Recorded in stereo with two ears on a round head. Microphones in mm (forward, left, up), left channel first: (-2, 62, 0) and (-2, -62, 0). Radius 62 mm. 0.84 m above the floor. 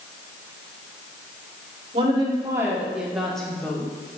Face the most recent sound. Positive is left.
turn(degrees=15)  # may be behind; listen again after turning